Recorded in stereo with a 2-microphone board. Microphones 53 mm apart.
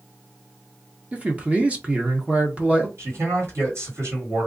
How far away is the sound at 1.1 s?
About 1.0 m.